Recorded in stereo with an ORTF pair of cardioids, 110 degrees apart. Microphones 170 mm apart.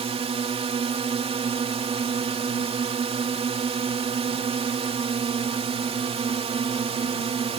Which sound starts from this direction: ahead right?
A drone, at 0.0 s.